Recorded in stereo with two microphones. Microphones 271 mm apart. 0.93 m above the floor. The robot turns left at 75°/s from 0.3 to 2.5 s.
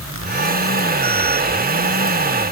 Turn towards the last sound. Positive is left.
No sound to turn to.